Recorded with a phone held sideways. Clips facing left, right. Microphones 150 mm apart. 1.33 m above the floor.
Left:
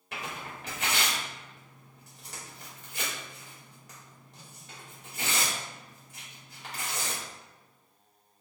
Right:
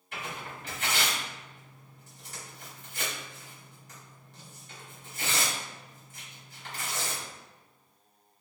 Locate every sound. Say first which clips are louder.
0.1 s tearing paper: even; 75° left (ahead or behind), 1.9 m